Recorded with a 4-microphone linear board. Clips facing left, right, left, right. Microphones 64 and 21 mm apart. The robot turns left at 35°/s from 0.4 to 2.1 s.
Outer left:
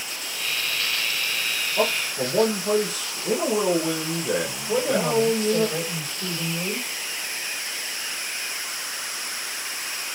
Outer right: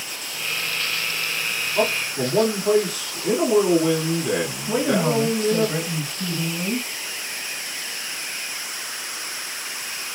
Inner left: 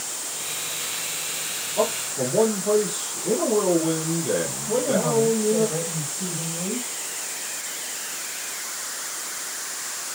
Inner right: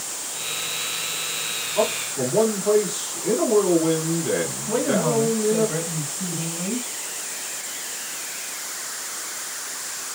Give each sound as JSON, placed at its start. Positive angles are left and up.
{"t": 1.8, "sound": "a man speaking", "side_deg": -45, "distance_m": 2.5}
{"t": 4.7, "sound": "a man speaking", "side_deg": -65, "distance_m": 3.0}